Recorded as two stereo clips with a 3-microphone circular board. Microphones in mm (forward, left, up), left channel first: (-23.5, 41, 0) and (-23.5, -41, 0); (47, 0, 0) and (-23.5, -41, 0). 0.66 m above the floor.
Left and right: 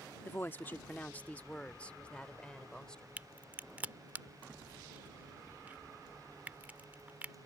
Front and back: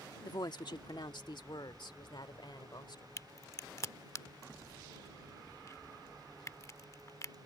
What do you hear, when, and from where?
0.2 s a woman speaking: 35° left; by 3.1 s 10° left
3.2 s a crack: 20° right